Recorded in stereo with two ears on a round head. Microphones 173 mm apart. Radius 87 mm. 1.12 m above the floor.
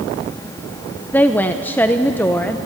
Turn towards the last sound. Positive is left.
turn(degrees=10)  # may be behind; listen again after turning